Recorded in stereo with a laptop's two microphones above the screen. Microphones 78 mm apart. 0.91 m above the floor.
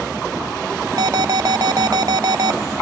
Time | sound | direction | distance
1.0 | an alarm | 50° right (ahead or behind) | ?